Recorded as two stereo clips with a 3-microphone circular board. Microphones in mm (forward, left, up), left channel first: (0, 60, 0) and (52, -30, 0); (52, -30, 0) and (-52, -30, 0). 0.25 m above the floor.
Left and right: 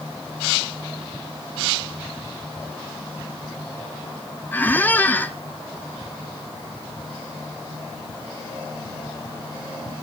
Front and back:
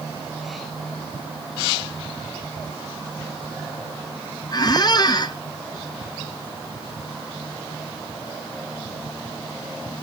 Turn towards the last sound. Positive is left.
turn(degrees=45)